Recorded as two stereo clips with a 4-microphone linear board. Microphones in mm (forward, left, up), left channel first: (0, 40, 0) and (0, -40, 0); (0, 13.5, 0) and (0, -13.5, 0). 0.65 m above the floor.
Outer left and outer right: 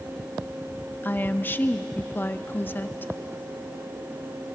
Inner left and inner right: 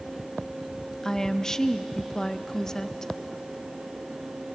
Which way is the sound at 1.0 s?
25° left (ahead or behind).